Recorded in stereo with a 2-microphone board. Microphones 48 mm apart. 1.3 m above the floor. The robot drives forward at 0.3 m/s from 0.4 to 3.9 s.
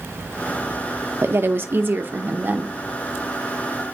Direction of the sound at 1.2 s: 55° right (ahead or behind).